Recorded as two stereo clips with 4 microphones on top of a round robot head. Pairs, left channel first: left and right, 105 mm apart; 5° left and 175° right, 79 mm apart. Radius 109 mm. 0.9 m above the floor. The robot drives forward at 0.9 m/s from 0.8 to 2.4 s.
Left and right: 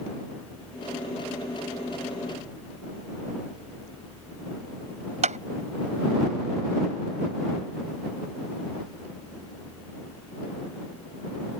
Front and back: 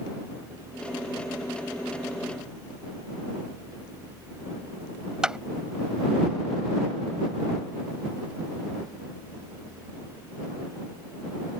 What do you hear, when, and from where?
5.2 s a clap: 95° right